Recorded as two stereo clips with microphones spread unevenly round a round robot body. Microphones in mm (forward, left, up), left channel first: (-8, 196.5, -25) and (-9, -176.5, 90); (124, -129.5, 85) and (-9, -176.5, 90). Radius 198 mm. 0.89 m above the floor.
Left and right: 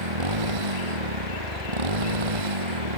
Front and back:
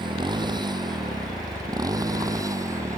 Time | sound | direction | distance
0.0 | a motorcycle | 105° right | ?